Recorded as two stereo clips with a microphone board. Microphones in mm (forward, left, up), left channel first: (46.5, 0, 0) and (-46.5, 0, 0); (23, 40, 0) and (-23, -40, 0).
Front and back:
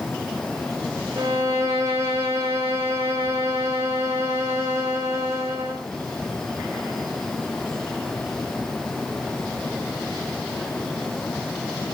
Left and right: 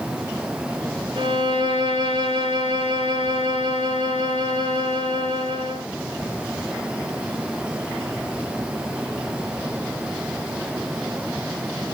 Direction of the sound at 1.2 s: 120° right.